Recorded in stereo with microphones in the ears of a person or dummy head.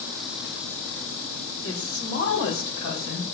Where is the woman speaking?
85° left, 4.5 m; by 3.2 s 75° left (ahead or behind), 4.5 m.